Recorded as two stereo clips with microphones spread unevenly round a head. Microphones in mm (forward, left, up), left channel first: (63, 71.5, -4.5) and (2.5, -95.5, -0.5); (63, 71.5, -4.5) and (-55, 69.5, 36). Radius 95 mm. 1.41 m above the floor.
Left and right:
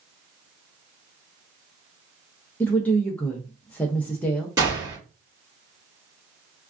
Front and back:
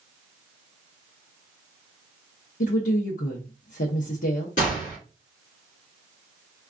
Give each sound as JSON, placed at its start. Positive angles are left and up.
{"t": 2.6, "sound": "a woman speaking", "azimuth_deg": -10, "distance_m": 0.6}
{"t": 4.6, "sound": "a gunshot", "azimuth_deg": -40, "distance_m": 2.5}